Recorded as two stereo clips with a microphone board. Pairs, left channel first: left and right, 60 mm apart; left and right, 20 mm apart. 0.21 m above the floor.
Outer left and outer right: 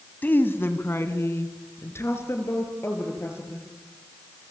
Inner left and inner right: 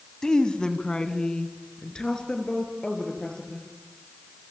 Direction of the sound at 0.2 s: 30° left (ahead or behind).